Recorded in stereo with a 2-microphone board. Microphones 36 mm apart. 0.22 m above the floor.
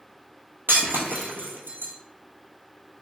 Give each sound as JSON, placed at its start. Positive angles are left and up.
{"t": 0.7, "sound": "breaking glass", "side_deg": -80, "distance_m": 0.9}